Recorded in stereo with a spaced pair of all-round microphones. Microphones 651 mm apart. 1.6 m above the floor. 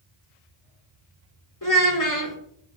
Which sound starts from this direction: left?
A child speaking, at 1.6 s.